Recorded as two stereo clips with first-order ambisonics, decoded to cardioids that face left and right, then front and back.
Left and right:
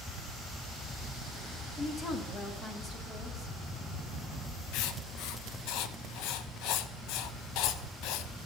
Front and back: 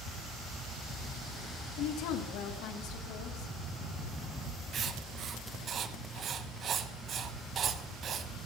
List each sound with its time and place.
1.8 s a woman speaking: 20° left, 1.7 m
4.7 s writing: 120° left, 0.9 m